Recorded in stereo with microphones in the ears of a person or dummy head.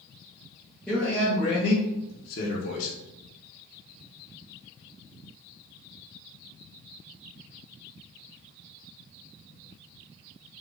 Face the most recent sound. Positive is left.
turn(degrees=45)  # may be behind; listen again after turning